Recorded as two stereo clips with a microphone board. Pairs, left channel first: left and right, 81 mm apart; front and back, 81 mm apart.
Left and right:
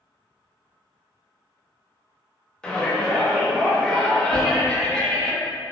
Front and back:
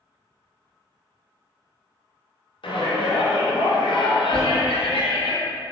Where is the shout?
10° left, 0.6 m.